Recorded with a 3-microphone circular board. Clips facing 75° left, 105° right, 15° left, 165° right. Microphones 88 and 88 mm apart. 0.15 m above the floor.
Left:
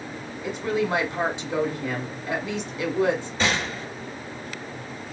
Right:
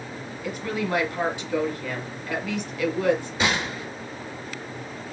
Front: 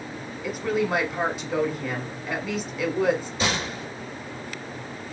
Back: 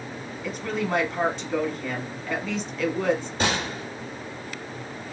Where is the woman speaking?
85° left, 1.1 m.